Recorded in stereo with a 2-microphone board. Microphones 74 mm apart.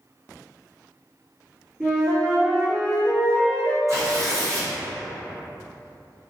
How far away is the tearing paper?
About 1.4 m.